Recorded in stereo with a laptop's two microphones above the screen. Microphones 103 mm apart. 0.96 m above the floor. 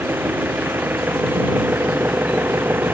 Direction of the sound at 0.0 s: 15° right (ahead or behind).